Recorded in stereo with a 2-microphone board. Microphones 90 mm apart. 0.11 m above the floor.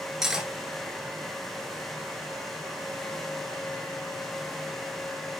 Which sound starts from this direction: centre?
Cutlery clinking, at 0.2 s.